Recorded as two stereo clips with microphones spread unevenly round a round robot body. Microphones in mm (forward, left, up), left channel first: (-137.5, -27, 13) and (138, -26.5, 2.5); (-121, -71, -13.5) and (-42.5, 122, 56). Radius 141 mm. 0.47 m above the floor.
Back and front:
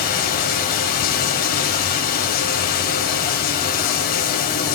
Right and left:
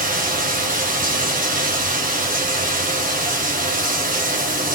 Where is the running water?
120° left, 2.5 m.